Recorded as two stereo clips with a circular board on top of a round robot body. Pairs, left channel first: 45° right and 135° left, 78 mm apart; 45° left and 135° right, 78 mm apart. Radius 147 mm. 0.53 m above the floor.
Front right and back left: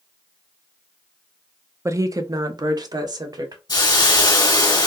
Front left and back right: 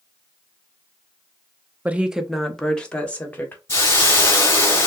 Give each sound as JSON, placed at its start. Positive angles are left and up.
{"t": 1.9, "sound": "a woman speaking", "azimuth_deg": 165, "distance_m": 0.8}
{"t": 3.7, "sound": "a hiss", "azimuth_deg": -10, "distance_m": 1.9}